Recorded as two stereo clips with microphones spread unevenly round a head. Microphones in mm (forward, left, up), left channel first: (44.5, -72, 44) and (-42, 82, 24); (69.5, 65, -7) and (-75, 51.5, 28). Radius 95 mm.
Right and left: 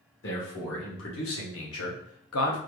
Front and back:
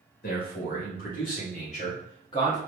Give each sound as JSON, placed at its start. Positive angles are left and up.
{"t": 0.2, "sound": "a man speaking", "azimuth_deg": -35, "distance_m": 1.9}